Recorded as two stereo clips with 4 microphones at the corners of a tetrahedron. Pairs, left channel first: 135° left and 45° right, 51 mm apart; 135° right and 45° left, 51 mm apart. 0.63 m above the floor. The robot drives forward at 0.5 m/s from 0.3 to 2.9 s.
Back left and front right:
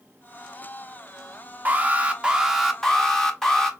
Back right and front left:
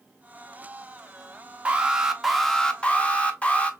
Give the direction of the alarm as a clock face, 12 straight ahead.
12 o'clock.